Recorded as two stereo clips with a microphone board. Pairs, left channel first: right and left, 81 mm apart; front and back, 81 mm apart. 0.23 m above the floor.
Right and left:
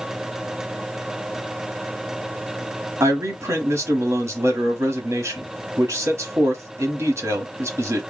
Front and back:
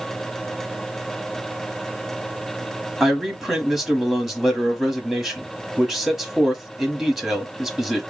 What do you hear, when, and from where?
3.0 s a man speaking: 95° left, 1.2 m